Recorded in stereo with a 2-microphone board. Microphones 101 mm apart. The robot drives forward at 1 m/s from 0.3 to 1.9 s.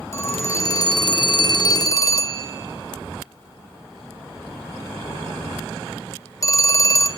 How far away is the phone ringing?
About 1.2 m.